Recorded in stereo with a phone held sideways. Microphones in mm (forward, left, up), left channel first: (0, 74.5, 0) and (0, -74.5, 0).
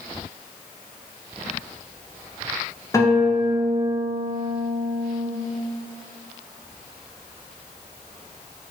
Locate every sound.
2.9 s a guitar: 20° left (ahead or behind), 0.7 m